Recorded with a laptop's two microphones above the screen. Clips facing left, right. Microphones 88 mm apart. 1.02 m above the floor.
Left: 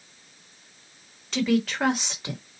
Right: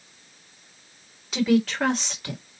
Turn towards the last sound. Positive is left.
turn(degrees=25)  # may be behind; listen again after turning